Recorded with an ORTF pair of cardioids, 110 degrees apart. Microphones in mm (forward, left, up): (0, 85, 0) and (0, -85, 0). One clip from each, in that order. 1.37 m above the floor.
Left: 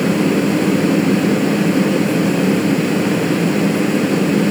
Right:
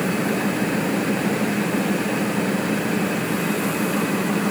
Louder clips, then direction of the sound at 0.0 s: Left 6 dB; 55° left.